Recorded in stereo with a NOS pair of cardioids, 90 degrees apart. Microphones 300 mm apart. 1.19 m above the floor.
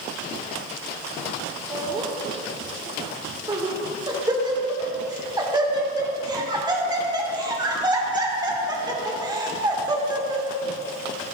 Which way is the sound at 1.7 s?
15° right.